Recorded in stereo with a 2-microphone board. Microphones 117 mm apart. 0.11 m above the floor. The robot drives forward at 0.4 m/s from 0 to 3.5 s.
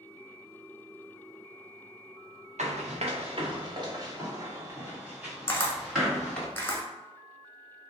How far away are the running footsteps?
About 1.2 m.